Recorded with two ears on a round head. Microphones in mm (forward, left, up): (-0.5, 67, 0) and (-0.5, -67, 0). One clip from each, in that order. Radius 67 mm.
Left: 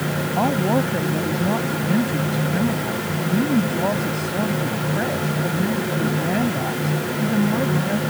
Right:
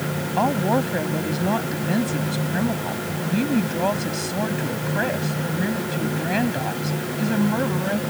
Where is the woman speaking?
55° right (ahead or behind).